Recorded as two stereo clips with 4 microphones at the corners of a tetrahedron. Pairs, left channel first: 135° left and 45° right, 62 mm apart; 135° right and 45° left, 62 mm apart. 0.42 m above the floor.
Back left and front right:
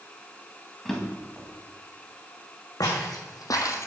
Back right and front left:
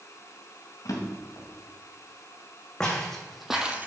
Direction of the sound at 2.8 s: 145° left.